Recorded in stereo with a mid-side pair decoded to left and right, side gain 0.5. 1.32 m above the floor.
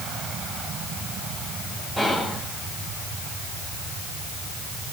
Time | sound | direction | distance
2.0 | whispering | 5° right | 1.0 m